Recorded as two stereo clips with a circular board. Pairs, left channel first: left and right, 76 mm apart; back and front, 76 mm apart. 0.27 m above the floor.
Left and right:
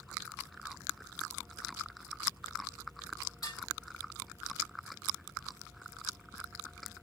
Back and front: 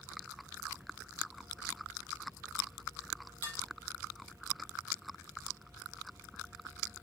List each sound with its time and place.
3.4 s dishes clattering: 125° left, 5.5 m